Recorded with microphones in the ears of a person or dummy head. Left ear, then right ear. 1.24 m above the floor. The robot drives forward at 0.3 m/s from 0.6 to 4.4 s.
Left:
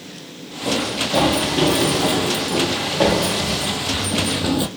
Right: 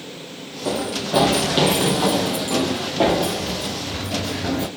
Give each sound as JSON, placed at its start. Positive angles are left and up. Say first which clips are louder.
{"t": 0.7, "sound": "running footsteps", "louder": "left 3 dB", "side_deg": -50, "distance_m": 1.9}